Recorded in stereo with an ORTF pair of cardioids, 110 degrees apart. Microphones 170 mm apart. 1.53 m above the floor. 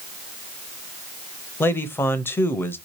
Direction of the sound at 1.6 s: 15° left.